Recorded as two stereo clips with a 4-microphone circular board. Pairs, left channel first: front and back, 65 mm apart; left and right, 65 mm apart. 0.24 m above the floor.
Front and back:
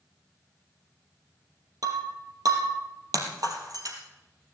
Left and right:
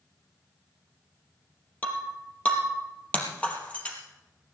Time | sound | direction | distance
1.8 | breaking glass | 160° left | 3 m